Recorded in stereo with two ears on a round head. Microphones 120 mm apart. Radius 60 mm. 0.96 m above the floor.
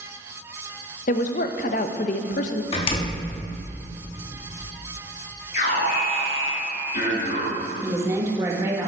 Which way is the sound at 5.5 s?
60° left (ahead or behind).